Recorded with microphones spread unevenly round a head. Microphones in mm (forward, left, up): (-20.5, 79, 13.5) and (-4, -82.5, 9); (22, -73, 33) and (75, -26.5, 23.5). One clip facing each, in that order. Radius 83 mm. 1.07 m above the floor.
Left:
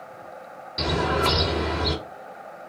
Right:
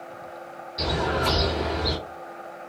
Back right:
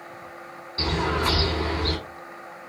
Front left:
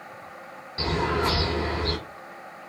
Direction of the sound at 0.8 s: 115° left.